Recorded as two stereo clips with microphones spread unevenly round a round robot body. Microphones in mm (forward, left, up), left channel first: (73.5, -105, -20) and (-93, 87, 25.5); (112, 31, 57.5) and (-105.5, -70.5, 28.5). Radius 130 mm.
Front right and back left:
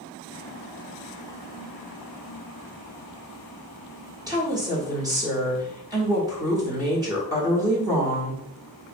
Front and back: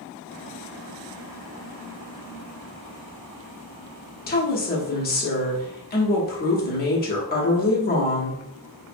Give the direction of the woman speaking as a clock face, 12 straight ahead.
10 o'clock.